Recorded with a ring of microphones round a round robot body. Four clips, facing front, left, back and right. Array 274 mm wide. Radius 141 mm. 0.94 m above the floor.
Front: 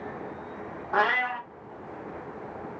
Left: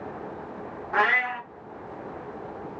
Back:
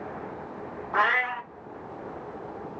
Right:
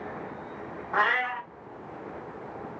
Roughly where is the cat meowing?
Ahead left.